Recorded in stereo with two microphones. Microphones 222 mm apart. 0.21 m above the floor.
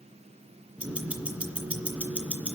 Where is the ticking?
5° right (ahead or behind), 2.5 m.